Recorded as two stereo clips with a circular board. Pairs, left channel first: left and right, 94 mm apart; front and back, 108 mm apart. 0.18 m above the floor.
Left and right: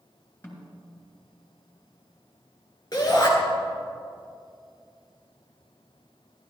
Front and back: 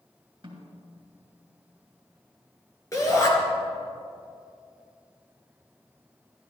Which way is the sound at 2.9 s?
55° left.